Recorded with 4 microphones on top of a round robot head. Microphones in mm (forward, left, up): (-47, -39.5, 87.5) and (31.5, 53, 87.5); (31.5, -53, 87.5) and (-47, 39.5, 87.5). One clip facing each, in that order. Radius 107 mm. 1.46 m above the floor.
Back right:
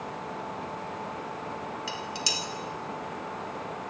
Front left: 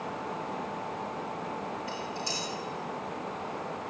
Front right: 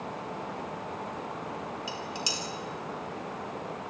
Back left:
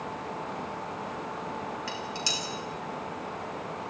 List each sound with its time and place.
1.9 s dishes clattering: 125° right, 3.5 m